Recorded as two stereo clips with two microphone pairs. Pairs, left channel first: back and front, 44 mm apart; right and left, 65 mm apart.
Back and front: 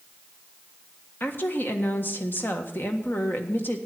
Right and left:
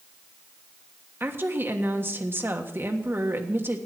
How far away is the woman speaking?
About 1.4 m.